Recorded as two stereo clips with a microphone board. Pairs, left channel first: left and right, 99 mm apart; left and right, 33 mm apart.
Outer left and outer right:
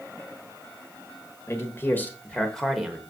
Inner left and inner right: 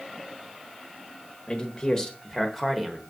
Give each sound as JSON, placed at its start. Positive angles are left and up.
{"t": 1.5, "sound": "a man speaking", "side_deg": 30, "distance_m": 1.3}